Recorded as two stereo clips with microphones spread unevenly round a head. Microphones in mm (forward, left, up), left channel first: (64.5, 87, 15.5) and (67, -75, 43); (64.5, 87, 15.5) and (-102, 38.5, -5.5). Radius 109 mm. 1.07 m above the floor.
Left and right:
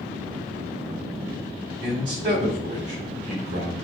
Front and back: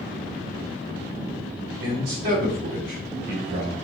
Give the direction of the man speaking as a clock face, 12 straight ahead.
5 o'clock.